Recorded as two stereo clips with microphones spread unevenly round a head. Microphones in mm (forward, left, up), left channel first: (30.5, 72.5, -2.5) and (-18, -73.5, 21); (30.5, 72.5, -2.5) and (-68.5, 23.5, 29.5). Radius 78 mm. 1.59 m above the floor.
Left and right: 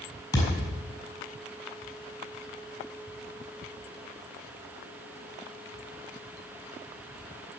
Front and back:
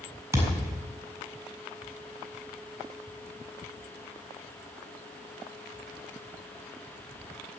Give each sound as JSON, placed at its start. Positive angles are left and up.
{"t": 0.3, "sound": "a thud", "azimuth_deg": 145, "distance_m": 5.0}